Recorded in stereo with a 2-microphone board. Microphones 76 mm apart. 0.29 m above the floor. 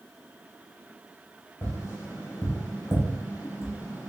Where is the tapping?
35° left (ahead or behind), 1.4 m.